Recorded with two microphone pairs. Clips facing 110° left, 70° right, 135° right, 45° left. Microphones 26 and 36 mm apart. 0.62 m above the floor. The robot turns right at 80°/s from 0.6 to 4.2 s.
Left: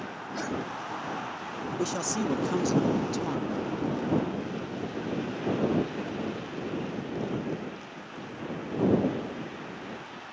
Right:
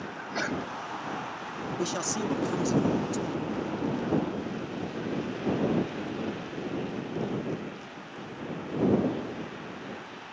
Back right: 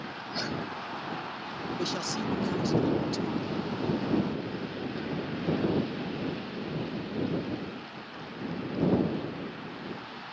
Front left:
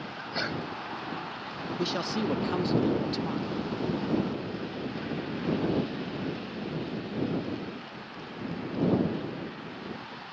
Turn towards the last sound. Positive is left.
turn(degrees=175)